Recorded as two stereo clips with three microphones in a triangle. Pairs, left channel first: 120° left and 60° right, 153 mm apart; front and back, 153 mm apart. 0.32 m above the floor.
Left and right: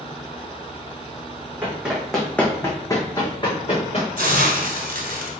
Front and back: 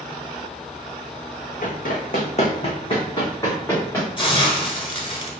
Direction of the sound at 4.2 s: 60° right.